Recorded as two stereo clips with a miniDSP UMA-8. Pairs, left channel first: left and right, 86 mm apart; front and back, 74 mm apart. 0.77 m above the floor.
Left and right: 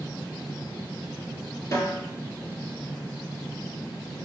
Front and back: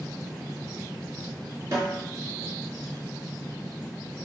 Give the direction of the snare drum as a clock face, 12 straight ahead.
7 o'clock.